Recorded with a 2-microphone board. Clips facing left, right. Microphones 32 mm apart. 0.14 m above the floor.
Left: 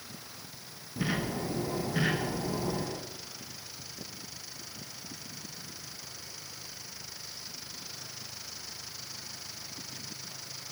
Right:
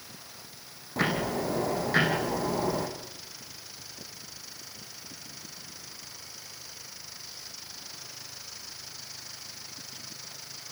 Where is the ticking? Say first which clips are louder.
Right 4 dB; 70° right (ahead or behind), 6 m.